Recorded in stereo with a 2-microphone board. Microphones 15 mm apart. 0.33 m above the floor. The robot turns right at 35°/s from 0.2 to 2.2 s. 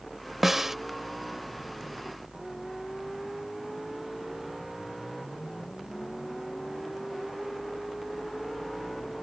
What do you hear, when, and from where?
0.4 s a snare drum: 15° right (ahead or behind); by 0.8 s 20° right (ahead or behind)